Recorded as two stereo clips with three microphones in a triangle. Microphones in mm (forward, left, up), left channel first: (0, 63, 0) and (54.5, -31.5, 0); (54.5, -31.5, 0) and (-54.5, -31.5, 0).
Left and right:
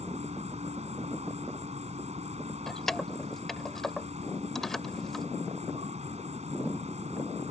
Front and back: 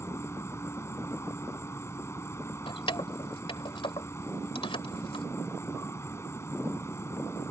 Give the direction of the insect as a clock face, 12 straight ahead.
2 o'clock.